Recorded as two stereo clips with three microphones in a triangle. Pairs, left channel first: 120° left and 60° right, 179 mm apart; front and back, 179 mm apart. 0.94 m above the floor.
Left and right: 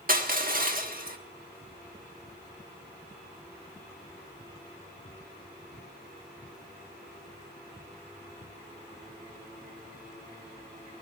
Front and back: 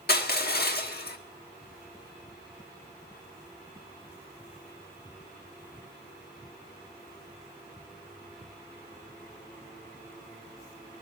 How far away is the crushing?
About 1.3 m.